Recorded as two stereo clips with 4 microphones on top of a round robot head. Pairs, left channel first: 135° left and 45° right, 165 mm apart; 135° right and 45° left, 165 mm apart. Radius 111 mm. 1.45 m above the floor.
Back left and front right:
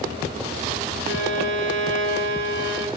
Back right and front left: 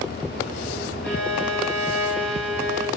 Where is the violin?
50° right, 2.5 m.